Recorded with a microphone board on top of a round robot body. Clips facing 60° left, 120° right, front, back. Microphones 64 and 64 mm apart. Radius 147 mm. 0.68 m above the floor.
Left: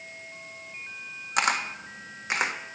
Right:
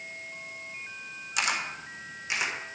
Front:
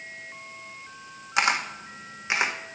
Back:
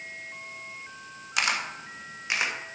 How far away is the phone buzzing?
I don't hear a phone buzzing.